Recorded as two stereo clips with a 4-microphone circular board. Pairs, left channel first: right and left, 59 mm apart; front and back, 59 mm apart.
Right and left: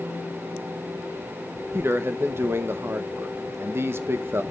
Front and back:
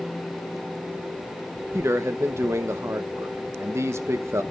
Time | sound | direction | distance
1.7 | a man speaking | 140° left | 1.0 m